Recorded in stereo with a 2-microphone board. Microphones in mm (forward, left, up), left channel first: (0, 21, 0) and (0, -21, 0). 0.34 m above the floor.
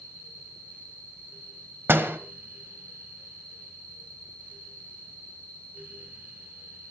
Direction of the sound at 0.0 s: 20° left (ahead or behind).